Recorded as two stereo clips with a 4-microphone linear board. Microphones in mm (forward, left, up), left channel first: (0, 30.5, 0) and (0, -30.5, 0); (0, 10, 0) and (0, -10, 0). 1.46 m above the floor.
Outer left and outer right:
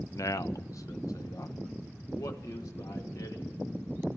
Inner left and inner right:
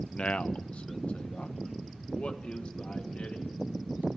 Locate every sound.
0.1 s a man speaking: 60° left (ahead or behind), 0.6 m; by 3.6 s 75° left (ahead or behind), 3 m